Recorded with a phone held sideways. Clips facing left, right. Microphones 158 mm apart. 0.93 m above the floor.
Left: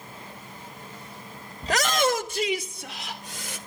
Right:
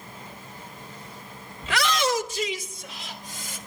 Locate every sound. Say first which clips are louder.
1.6 s a shout: left 1 dB; 35° left (ahead or behind), 1.1 m; by 3.6 s 70° left (ahead or behind), 4 m